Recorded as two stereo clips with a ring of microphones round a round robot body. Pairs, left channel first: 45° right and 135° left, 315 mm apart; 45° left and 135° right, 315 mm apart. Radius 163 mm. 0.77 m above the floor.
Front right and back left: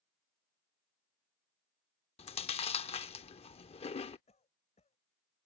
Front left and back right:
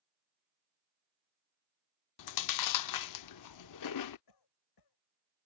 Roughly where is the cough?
Ahead left.